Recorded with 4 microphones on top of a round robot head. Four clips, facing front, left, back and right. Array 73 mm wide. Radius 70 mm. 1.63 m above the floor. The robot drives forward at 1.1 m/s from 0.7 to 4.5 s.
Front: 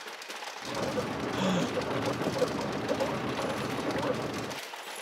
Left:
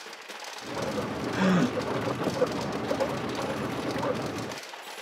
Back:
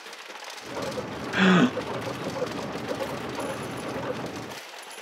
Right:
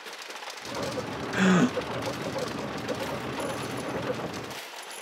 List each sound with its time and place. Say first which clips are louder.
1.3 s a gasp: right 2 dB, back 11 dB; 165° right; by 1.8 s 170° right